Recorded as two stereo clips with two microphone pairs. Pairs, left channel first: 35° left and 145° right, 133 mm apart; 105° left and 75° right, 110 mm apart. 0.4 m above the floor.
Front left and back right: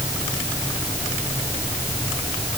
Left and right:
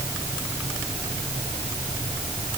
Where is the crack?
I don't hear a crack.